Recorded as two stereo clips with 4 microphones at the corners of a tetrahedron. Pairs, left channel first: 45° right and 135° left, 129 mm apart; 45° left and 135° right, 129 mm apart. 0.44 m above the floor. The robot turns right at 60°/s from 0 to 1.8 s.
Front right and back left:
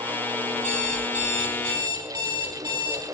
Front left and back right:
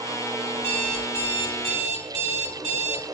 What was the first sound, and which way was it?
An alarm clock, 115° left.